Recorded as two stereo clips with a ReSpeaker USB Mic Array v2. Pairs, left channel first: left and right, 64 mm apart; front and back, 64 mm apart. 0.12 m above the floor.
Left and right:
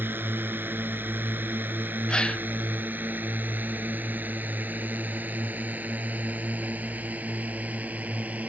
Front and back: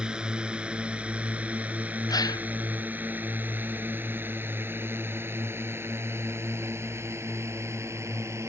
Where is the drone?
115° right; by 8.5 s 150° right.